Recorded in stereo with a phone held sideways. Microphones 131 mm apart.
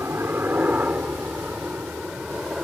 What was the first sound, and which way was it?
A helicopter, 15° right (ahead or behind).